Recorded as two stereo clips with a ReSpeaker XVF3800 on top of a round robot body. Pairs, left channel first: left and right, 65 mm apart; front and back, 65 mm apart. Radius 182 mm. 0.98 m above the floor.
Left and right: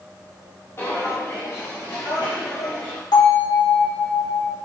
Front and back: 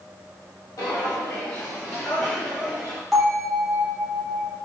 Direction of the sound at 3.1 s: 95° left.